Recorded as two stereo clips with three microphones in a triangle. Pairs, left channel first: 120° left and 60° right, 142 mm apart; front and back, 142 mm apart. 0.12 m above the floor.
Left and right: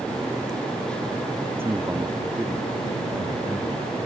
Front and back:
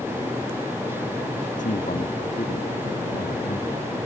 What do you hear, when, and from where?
1.6 s a man speaking: 15° left; by 3.9 s 10° left